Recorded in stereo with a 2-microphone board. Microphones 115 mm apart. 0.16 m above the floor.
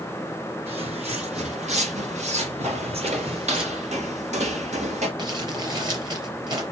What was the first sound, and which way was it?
Footsteps, 60° right (ahead or behind).